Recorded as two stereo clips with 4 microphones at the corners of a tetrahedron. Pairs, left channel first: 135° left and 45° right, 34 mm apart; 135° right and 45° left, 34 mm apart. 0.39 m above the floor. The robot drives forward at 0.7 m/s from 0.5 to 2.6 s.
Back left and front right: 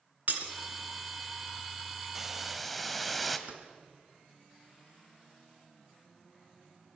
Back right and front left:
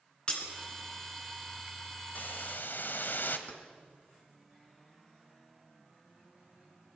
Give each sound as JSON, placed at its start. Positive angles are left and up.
{"t": 0.3, "sound": "breaking glass", "azimuth_deg": -75, "distance_m": 3.0}
{"t": 2.1, "sound": "a hiss", "azimuth_deg": -125, "distance_m": 1.2}
{"t": 3.5, "sound": "keys jangling", "azimuth_deg": -90, "distance_m": 2.5}